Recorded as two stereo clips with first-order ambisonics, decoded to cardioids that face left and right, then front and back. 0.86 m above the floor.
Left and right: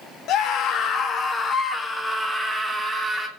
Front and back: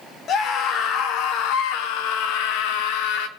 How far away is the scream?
About 1.6 m.